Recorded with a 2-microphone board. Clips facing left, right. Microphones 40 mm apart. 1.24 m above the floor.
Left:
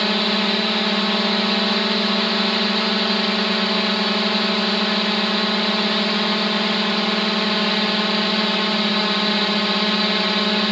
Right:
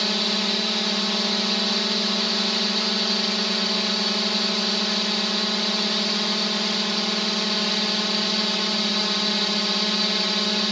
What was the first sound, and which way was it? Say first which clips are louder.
A drone: left 5 dB; 30° left (ahead or behind).